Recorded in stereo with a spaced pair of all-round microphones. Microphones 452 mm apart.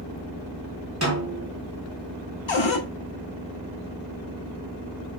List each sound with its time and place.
1.0 s a snare drum: 35° right (ahead or behind), 1.6 m
2.5 s a cupboard door: 75° left (ahead or behind), 0.6 m